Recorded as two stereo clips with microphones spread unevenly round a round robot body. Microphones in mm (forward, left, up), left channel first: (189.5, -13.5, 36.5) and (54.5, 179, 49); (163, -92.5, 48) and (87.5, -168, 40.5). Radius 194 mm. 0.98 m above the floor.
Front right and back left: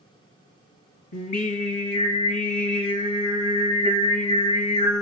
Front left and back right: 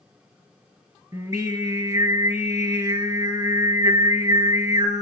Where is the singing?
80° right, 2.5 m.